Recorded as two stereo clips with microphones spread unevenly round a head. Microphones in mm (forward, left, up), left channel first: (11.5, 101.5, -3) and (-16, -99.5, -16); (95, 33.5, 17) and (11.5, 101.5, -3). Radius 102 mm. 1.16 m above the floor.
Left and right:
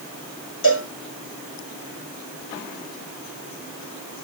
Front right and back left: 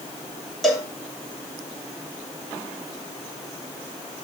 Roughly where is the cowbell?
Ahead left.